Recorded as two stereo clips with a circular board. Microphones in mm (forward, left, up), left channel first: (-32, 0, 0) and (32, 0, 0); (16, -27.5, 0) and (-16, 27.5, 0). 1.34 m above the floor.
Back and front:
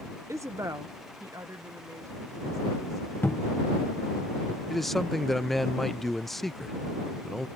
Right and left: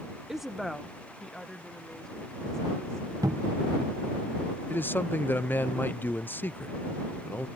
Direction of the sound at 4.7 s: 95° right.